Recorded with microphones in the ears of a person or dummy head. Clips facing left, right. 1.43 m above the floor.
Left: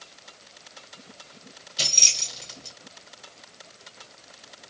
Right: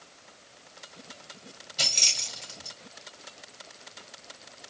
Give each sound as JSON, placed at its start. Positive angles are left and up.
{"t": 1.8, "sound": "keys jangling", "side_deg": 10, "distance_m": 1.0}